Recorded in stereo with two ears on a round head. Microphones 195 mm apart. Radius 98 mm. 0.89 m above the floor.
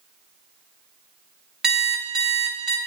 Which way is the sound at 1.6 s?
Centre (ahead or behind).